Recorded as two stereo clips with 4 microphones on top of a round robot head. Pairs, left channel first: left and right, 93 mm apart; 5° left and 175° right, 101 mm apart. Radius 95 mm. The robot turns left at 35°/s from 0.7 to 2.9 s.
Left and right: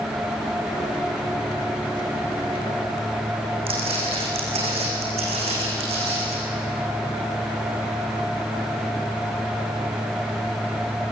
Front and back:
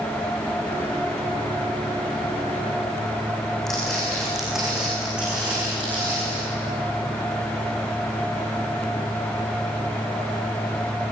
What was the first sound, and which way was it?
Footsteps, 85° right.